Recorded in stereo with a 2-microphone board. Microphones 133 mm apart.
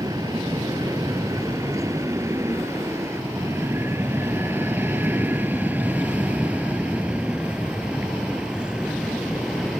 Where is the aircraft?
25° right (ahead or behind); by 9.8 s 5° right (ahead or behind).